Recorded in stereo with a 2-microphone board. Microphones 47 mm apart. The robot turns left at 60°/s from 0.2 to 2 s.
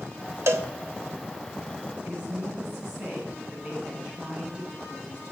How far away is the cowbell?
About 0.8 m.